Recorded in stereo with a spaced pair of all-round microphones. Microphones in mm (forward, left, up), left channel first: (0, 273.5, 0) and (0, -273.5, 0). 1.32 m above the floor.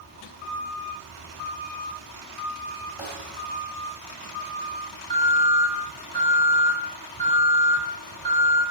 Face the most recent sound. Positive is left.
turn(degrees=-50)  # may be behind; listen again after turning